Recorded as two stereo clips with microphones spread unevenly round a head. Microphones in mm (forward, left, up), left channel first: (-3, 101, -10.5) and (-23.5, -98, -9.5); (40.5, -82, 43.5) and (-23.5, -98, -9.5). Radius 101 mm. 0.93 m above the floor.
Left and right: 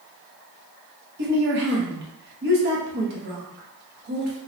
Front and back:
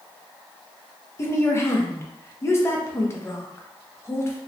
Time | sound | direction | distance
1.2 | a woman speaking | 65° right | 0.7 m